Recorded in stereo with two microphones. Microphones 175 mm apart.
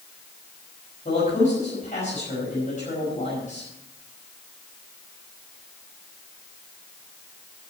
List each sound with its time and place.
1.1 s a man speaking: 45° left (ahead or behind), 5.5 m